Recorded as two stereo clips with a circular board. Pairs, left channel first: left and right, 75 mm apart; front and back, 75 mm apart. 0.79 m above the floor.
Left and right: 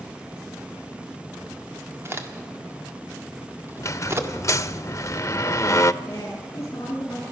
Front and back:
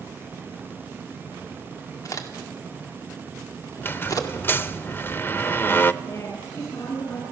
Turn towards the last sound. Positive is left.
turn(degrees=45)